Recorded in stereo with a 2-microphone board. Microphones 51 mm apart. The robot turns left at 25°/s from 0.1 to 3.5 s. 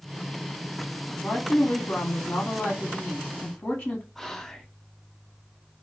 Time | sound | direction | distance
1.2 | a woman speaking | 100° left | 0.8 m
4.2 | whispering | 5° left (ahead or behind) | 0.6 m